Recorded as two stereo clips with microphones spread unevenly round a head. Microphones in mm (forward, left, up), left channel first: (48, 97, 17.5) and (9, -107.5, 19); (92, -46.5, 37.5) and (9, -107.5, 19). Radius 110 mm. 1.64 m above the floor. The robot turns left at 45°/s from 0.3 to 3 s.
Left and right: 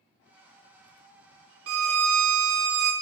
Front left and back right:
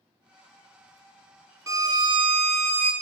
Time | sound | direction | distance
1.7 | a violin | 80° right | 0.6 m